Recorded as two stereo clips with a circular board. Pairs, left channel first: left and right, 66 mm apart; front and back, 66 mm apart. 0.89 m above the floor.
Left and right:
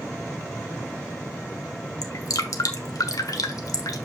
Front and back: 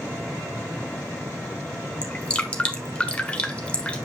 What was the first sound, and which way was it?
Dripping, 70° left.